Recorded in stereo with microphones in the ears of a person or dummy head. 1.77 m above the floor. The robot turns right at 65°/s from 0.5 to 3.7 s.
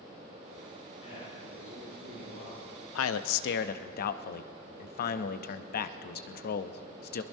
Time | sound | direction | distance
1.0 | a man speaking | 35° left | 6 m
3.0 | a man speaking | 80° left | 0.6 m